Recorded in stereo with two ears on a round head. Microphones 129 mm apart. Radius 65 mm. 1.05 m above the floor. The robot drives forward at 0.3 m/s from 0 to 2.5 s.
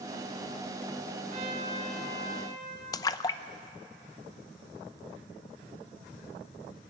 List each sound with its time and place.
1.3 s a trumpet: 40° right (ahead or behind), 5.5 m; by 2.8 s 45° right (ahead or behind), 5 m
2.9 s a splash: 25° left (ahead or behind), 0.5 m